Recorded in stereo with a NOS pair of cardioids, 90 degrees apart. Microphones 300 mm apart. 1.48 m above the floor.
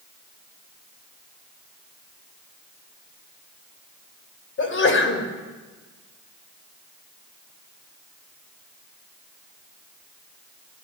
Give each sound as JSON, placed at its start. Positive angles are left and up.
{"t": 4.6, "sound": "a sneeze", "azimuth_deg": 45, "distance_m": 5.5}